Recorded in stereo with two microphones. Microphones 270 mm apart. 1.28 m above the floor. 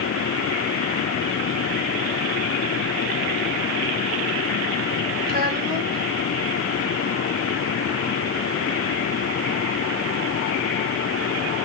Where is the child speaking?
35° right (ahead or behind), 5 m.